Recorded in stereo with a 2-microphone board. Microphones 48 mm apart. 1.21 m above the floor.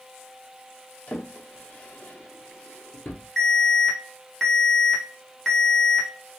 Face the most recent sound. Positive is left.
turn(degrees=5)  # may be behind; listen again after turning